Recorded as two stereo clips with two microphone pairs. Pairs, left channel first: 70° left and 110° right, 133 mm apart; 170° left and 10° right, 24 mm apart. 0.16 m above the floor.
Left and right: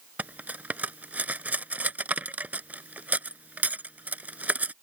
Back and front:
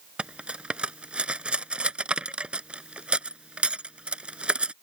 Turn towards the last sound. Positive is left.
turn(degrees=-40)